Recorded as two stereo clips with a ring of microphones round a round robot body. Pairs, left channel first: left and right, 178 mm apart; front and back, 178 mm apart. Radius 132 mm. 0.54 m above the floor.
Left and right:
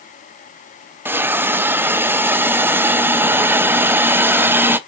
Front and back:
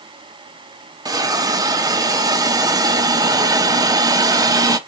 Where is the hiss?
150° right, 0.5 m.